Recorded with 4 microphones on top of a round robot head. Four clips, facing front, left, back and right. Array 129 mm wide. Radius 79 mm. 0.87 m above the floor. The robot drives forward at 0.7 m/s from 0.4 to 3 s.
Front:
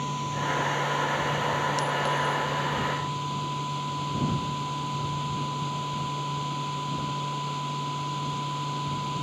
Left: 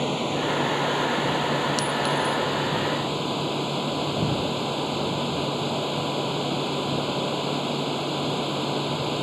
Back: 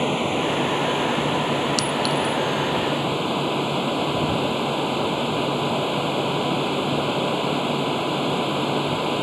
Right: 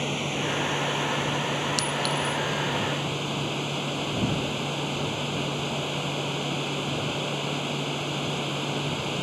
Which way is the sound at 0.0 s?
155° left.